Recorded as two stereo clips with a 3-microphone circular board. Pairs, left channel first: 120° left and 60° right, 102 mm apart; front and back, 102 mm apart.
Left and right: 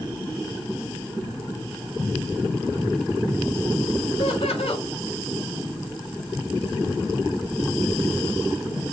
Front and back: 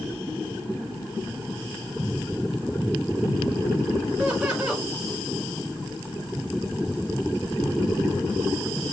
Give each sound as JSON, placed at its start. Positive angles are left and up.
{"t": 4.2, "sound": "laughter", "azimuth_deg": 100, "distance_m": 4.5}